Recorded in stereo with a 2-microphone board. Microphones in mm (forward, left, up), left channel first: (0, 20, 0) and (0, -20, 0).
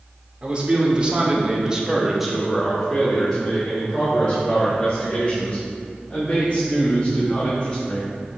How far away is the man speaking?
About 1.7 m.